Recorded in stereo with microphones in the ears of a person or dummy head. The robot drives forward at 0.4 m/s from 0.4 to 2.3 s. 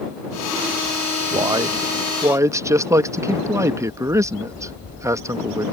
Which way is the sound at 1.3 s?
15° right (ahead or behind).